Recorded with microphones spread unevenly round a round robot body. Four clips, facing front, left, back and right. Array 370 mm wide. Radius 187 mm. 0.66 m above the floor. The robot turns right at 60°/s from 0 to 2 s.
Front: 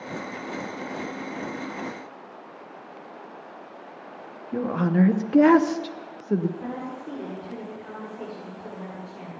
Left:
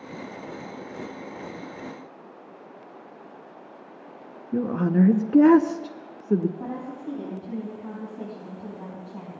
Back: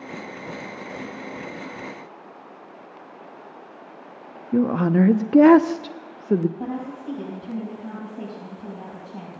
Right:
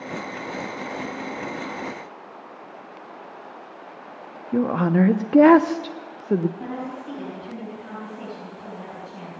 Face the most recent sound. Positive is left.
turn(degrees=-170)